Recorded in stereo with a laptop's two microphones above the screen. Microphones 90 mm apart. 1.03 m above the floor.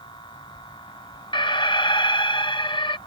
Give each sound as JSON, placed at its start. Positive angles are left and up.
{"t": 0.0, "sound": "a machine running", "side_deg": 60}
{"t": 1.3, "sound": "an alarm", "side_deg": 60}